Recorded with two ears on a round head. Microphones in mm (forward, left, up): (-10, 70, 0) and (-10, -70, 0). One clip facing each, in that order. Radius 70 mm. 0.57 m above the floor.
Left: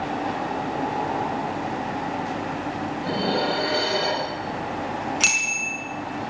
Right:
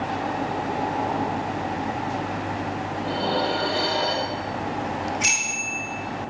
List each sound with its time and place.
3.0 s dishes clattering: 85° left, 6.5 m
5.2 s a bicycle bell: 85° left, 5 m